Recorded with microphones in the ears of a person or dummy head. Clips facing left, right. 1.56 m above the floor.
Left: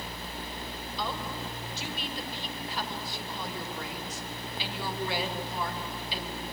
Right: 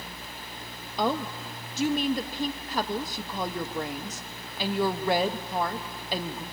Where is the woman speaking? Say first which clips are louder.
Right 8 dB; 45° right (ahead or behind), 0.8 m.